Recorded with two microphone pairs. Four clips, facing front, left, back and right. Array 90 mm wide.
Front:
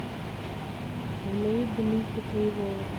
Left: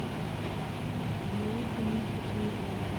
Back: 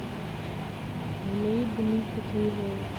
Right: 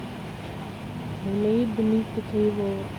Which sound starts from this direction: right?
A woman speaking, at 1.2 s.